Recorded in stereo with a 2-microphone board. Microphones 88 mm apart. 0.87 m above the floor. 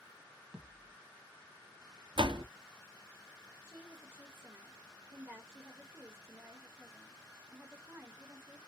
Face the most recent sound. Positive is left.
turn(degrees=-25)  # may be behind; listen again after turning